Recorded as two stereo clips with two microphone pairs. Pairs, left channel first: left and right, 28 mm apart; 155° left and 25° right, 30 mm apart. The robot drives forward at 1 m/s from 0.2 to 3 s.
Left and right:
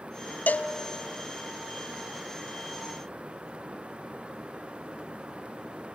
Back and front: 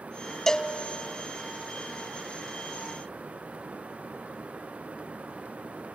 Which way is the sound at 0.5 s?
85° left.